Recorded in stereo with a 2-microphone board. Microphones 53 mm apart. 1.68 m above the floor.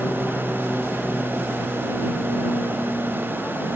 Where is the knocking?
No knocking in this recording.